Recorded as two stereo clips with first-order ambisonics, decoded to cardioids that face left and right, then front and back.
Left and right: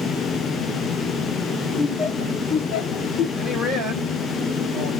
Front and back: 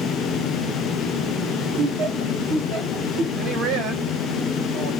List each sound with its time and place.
1.8 s laughter: 165° left, 3 m; by 3.2 s 140° left, 2 m
3.4 s a man speaking: 175° left, 3.5 m